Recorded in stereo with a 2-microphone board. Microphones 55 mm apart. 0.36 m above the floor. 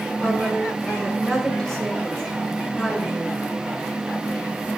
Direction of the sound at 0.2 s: 15° left (ahead or behind).